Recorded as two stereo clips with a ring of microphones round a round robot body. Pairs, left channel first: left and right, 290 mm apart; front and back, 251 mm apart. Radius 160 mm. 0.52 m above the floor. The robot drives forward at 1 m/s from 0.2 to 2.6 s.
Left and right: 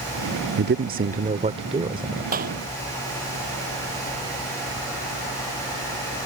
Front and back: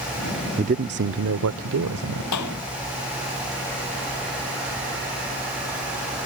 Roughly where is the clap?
Ahead right.